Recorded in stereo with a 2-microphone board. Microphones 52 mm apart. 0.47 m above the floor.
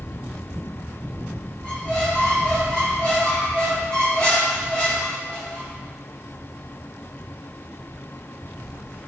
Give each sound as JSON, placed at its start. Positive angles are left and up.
{"t": 1.6, "sound": "a squeak", "side_deg": 25, "distance_m": 3.5}